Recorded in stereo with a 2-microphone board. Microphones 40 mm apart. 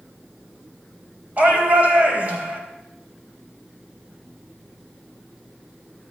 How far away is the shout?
About 3.5 m.